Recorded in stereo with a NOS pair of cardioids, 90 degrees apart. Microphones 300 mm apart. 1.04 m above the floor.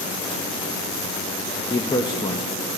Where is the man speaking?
15° left, 0.9 m.